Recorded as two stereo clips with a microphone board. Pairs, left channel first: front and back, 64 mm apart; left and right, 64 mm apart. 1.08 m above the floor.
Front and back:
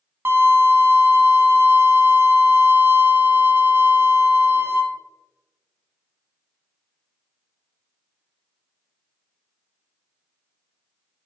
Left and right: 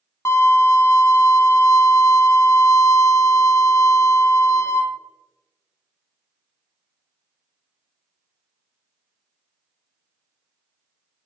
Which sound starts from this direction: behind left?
A violin, at 0.2 s.